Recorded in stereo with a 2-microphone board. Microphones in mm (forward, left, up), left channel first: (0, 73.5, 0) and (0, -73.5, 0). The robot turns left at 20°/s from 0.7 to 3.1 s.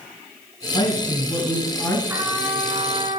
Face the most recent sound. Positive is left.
turn(degrees=-35)  # may be behind; listen again after turning